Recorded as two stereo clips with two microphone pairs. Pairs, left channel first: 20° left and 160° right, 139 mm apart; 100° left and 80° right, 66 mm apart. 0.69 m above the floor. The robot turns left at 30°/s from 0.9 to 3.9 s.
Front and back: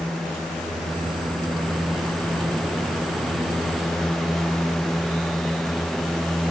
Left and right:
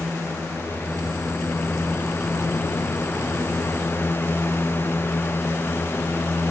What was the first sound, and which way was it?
Only background noise.